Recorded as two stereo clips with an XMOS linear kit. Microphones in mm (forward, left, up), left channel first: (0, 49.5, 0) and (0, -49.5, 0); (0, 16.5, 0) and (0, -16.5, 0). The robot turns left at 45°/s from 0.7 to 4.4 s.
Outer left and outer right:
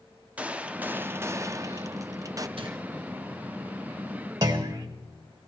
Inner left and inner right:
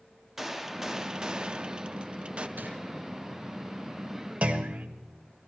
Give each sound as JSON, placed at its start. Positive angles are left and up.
{"t": 0.4, "sound": "a gunshot", "azimuth_deg": -25, "distance_m": 0.6}
{"t": 2.6, "sound": "crumpling", "side_deg": -60, "distance_m": 3.0}
{"t": 4.4, "sound": "a clunk", "side_deg": -40, "distance_m": 1.4}